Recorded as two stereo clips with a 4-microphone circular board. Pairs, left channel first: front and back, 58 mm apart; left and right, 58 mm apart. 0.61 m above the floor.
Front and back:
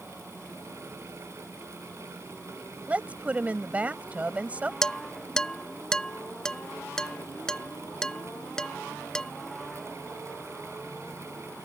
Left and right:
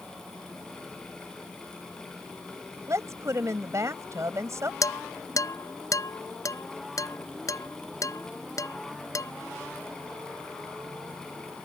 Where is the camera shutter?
No camera shutter in this recording.